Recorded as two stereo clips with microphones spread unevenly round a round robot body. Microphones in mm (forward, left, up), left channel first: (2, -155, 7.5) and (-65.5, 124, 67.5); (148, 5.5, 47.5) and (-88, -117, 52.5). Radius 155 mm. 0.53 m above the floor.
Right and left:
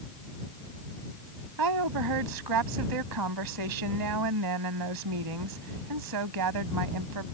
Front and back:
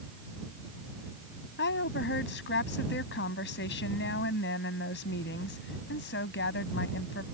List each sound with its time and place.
1.6 s a woman speaking: 80° left